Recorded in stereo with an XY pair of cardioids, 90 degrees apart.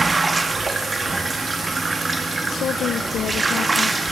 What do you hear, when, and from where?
0.0 s running water: 25° right, 2 m
2.5 s a woman speaking: 70° left, 1.4 m